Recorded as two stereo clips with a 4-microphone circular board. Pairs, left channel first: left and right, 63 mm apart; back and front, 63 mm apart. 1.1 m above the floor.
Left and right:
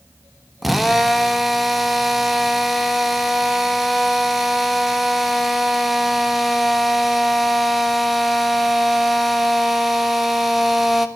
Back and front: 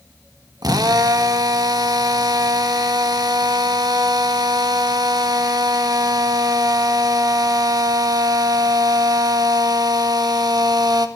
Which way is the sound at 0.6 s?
Straight ahead.